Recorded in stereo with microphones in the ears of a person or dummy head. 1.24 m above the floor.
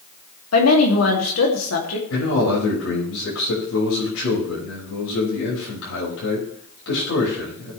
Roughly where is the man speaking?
Left.